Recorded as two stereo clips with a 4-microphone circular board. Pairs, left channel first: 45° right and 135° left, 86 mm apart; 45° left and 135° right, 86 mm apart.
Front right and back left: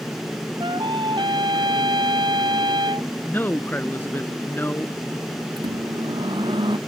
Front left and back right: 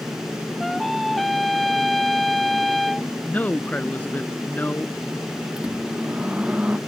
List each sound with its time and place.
0.6 s a trumpet: 135° left
3.2 s a man speaking: 5° right
5.6 s a microwave: 150° left